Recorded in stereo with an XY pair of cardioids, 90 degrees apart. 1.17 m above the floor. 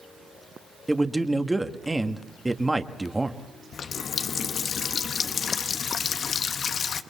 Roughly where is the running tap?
Ahead left.